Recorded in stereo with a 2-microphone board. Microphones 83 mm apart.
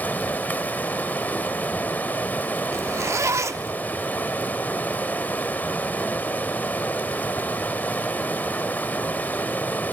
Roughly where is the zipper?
Right.